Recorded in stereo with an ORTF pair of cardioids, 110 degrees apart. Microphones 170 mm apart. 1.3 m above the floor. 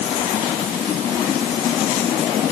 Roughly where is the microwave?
No microwave in this recording.